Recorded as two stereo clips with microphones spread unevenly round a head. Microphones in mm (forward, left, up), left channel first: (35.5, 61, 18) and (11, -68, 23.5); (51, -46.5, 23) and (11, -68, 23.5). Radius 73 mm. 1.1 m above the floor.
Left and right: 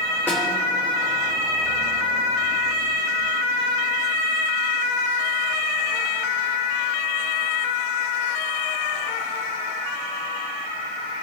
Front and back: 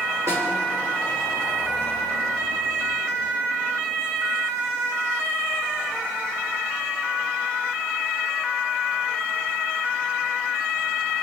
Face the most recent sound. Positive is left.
turn(degrees=160)